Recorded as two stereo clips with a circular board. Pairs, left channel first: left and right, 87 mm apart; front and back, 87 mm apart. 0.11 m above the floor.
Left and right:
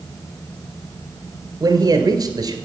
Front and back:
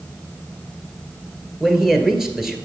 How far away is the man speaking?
About 1.7 m.